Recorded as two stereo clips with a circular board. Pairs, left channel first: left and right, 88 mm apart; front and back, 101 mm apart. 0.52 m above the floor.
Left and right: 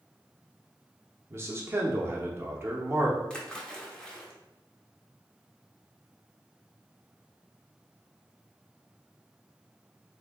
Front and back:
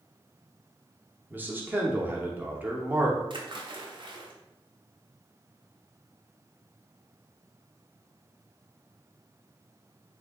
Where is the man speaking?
125° right, 0.7 m.